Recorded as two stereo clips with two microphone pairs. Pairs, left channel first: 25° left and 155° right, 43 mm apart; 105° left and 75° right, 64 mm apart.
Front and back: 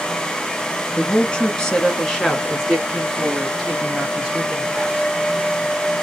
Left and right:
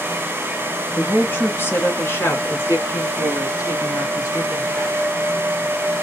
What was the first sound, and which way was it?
A woman speaking, 65° left.